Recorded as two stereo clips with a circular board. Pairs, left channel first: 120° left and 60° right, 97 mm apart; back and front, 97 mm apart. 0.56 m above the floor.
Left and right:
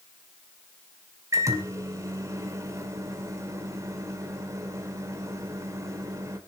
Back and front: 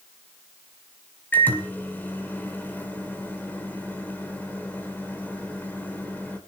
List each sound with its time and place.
1.3 s a microwave: 110° right, 2 m